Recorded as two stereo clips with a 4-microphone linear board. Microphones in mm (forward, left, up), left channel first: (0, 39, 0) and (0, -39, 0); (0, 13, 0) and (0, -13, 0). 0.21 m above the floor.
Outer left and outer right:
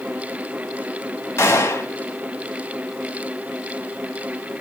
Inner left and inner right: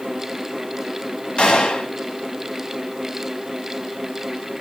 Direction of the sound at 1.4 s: 35° left (ahead or behind).